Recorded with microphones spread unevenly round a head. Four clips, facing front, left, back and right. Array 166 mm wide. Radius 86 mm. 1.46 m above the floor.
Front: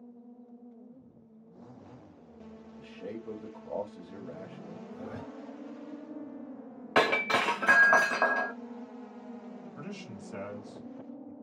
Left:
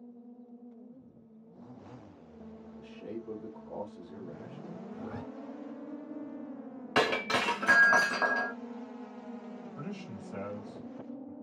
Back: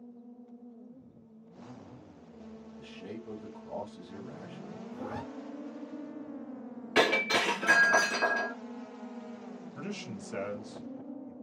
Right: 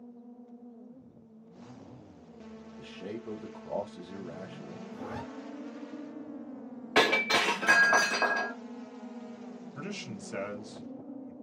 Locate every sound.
2.8 s a man speaking: 45° right, 0.8 m
4.9 s a zipper: 155° right, 1.1 m
7.0 s breaking glass: 30° left, 1.2 m
9.8 s a man speaking: 110° right, 1.1 m